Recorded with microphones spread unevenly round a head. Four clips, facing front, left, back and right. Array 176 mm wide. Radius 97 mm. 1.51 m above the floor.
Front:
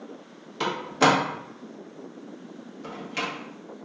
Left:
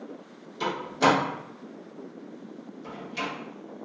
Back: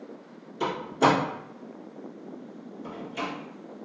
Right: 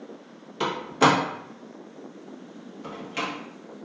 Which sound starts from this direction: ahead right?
A door slam, at 0.6 s.